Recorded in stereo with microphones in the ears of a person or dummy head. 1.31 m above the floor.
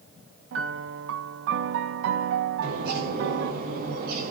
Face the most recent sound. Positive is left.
turn(degrees=-55)  # may be behind; listen again after turning